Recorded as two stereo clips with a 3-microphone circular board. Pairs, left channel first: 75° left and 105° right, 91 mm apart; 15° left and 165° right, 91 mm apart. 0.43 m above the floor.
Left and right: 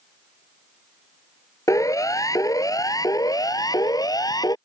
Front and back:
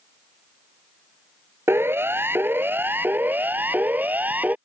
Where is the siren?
130° left; by 4.5 s 120° left.